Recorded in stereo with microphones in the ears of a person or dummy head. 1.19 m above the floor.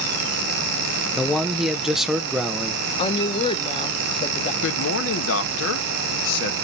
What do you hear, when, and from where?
1.1 s a man speaking: centre (ahead or behind), 0.7 m
3.0 s a woman speaking: 30° left (ahead or behind), 0.9 m
4.6 s a man speaking: 70° left (ahead or behind), 1.4 m